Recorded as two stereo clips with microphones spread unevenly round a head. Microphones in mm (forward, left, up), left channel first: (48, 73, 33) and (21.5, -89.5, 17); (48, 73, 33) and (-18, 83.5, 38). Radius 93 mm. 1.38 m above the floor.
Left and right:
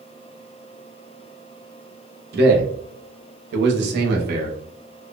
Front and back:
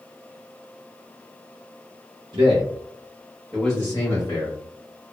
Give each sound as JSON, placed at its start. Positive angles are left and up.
{"t": 2.3, "sound": "a man speaking", "azimuth_deg": -140, "distance_m": 0.7}